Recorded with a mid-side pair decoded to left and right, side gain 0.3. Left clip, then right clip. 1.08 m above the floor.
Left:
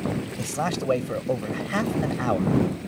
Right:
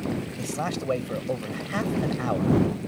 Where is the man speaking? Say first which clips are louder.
Left 4 dB; 40° left.